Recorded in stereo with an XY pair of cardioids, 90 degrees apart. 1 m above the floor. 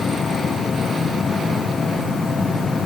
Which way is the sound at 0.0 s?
45° left.